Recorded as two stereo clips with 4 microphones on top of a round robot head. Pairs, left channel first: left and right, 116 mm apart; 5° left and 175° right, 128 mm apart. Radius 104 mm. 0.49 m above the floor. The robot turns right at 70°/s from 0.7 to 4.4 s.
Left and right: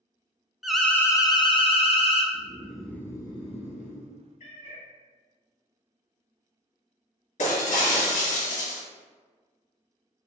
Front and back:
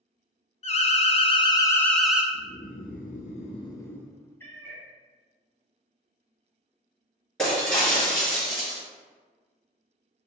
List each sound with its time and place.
0.6 s an alarm: straight ahead, 0.6 m; by 2.2 s 105° left, 0.6 m
2.3 s snoring: 30° right, 0.7 m; by 4.1 s 95° left, 0.7 m
4.4 s a cat meowing: 80° left, 1.0 m
7.4 s breaking glass: 90° left, 1.9 m